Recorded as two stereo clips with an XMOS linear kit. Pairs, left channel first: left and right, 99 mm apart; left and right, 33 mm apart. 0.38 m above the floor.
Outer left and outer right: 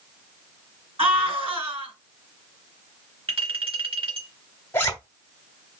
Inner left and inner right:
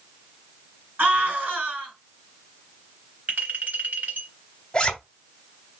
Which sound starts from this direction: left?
A zipper, at 4.7 s.